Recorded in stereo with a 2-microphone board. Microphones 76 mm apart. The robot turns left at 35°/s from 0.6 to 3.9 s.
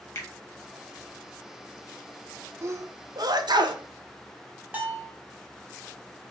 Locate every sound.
0.1 s a finger snap: 45° left (ahead or behind), 1.2 m
2.6 s a sneeze: 40° right (ahead or behind), 0.6 m; by 3.8 s 80° right, 0.6 m
4.7 s a bell: 20° right (ahead or behind), 0.9 m